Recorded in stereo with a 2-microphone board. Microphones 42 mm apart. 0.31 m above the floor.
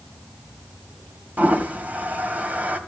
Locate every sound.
1.4 s a toilet flushing: 40° right (ahead or behind), 2 m